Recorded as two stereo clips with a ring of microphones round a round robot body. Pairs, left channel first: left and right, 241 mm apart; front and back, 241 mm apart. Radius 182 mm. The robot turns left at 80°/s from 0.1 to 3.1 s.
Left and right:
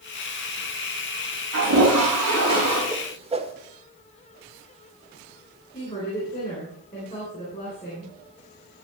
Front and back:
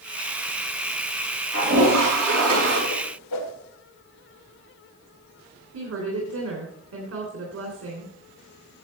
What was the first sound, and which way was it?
A toilet flushing, 125° right.